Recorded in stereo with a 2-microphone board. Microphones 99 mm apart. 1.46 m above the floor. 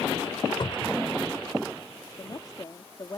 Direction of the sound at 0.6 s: 45° left (ahead or behind).